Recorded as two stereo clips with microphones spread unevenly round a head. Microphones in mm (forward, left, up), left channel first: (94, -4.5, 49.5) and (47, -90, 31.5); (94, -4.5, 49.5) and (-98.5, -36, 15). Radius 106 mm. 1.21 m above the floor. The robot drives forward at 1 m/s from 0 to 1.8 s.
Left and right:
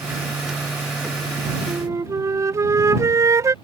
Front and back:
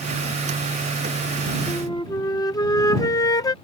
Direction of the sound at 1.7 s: 50° right.